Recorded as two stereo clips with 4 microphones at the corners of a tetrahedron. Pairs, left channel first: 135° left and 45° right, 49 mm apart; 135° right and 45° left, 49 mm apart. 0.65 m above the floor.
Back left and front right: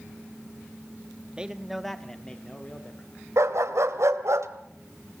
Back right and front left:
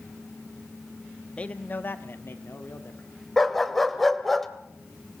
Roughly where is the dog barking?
Ahead right.